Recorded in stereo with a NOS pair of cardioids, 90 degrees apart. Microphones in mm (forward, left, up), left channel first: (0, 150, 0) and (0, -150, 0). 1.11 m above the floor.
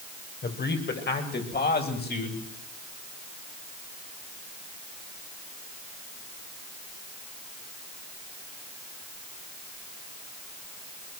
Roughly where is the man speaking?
Ahead left.